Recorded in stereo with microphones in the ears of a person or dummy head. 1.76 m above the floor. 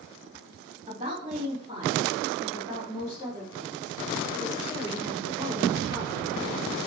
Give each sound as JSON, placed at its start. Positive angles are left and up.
{"t": 0.9, "sound": "a woman speaking", "side_deg": -20, "distance_m": 3.5}